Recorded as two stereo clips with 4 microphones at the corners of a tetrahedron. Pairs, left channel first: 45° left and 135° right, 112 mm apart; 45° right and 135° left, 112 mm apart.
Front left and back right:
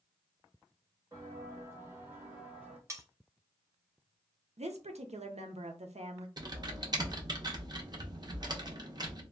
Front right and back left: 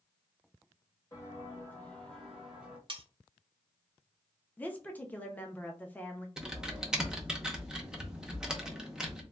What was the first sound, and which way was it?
Footsteps, 90° right.